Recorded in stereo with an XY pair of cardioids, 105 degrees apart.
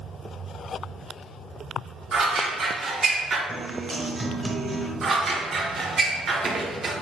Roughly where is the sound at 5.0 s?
Ahead right.